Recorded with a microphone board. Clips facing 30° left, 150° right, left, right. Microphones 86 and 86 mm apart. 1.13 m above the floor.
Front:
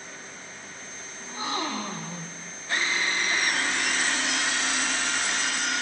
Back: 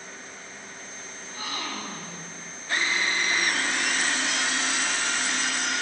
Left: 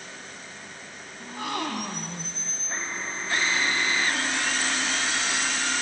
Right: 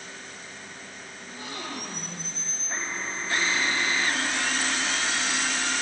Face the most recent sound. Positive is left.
turn(degrees=95)